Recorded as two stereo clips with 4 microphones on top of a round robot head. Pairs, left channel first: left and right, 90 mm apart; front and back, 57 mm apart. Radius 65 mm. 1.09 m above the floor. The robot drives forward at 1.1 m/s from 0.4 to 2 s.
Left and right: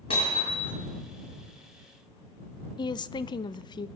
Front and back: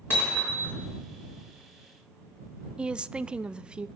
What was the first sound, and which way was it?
Hammering, 50° left.